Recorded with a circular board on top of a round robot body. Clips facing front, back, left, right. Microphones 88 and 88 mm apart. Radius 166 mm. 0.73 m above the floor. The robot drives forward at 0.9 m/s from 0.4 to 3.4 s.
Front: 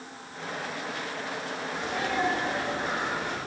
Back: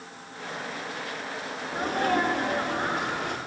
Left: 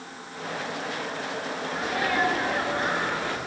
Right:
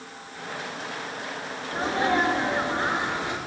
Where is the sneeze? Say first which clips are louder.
Back 5 dB, right 4 dB; 145° right, 2 m; by 3.4 s 160° right, 3.5 m.